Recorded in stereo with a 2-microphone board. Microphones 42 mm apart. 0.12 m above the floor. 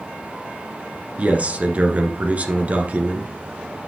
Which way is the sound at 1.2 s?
35° right (ahead or behind).